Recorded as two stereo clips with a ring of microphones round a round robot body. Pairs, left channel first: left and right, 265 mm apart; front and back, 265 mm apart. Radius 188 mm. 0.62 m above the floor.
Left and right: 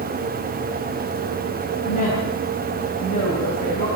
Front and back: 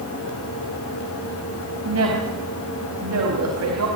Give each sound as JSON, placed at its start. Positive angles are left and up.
{"t": 1.9, "sound": "a woman speaking", "azimuth_deg": 160, "distance_m": 4.5}